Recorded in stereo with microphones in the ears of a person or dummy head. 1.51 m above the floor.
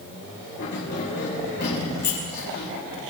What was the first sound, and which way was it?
Keys jangling, 60° left (ahead or behind).